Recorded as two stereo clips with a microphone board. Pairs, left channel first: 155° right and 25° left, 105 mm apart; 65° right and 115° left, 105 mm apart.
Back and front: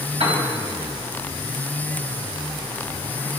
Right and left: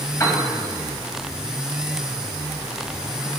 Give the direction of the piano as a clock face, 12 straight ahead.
12 o'clock.